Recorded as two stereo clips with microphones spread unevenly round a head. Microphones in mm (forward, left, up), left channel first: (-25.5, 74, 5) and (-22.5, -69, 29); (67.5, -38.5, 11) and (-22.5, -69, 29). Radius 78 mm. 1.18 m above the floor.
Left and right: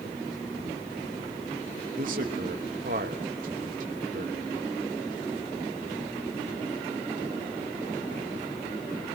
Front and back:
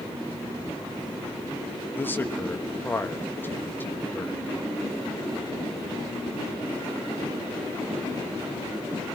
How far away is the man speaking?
About 1.4 m.